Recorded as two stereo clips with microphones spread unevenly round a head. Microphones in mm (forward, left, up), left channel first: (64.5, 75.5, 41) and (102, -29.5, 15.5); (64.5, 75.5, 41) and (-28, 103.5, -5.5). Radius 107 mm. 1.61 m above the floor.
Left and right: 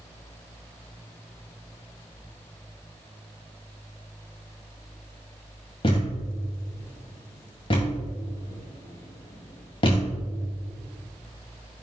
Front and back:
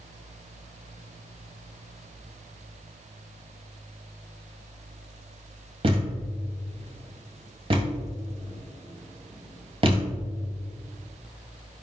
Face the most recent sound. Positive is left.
turn(degrees=125)